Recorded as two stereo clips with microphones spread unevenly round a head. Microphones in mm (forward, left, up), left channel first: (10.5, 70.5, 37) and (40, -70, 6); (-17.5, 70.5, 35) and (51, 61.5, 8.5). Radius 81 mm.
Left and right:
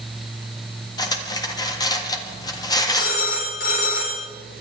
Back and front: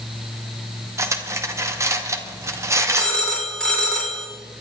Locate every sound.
1.0 s cutlery clinking: 45° left, 1.7 m
3.0 s a phone ringing: 95° left, 4.5 m